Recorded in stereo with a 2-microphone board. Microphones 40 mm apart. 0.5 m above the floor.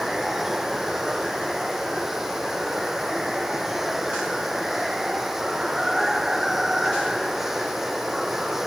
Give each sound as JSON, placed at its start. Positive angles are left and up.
{"t": 0.0, "sound": "running water", "side_deg": -10}